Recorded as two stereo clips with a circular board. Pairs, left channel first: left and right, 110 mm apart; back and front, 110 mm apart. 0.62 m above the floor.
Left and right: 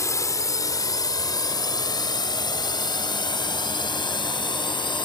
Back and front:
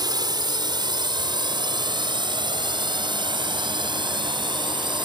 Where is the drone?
35° left; by 5.1 s 45° left.